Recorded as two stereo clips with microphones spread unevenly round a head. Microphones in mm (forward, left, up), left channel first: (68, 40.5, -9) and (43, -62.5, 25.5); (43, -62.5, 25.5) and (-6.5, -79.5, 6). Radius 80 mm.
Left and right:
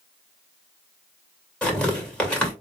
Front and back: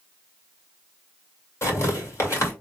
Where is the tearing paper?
5° right, 2.5 m.